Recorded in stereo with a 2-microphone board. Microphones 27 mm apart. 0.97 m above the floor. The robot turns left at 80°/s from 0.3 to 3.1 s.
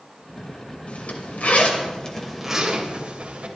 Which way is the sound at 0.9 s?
70° left (ahead or behind).